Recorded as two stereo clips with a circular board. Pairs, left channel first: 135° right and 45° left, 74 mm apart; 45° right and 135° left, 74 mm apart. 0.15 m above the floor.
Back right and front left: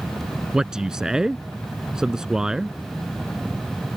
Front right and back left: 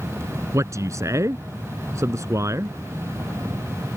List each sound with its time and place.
0.5 s a man speaking: 120° left